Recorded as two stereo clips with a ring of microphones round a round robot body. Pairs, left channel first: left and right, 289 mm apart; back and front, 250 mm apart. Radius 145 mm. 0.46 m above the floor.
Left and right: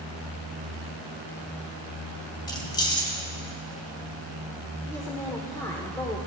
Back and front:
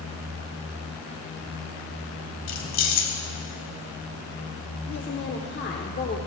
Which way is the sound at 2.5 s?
165° left.